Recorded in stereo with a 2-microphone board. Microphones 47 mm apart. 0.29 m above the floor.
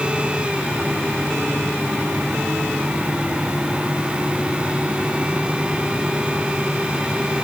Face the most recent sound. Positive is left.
No sound to turn to.